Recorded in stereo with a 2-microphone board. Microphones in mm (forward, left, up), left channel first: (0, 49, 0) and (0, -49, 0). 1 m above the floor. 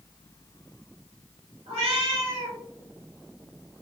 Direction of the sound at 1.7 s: 75° right (ahead or behind).